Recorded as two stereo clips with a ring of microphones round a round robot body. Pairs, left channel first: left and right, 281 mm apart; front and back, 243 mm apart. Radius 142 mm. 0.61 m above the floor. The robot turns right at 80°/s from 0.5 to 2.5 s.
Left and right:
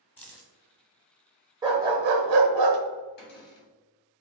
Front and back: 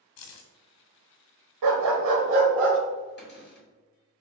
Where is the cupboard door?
40° left, 2 m.